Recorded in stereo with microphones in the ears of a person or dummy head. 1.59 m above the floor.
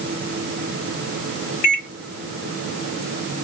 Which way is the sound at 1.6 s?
55° left (ahead or behind).